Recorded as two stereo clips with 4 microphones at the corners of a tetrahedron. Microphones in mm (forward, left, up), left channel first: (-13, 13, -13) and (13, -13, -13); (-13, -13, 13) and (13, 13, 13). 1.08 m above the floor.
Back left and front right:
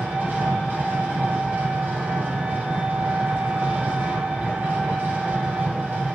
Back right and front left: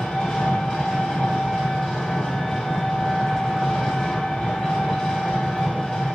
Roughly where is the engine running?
Right.